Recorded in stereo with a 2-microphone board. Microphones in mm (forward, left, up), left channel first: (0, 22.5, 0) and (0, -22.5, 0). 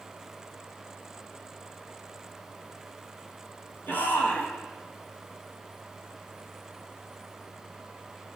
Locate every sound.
3.9 s a shout: 50° left (ahead or behind), 7 m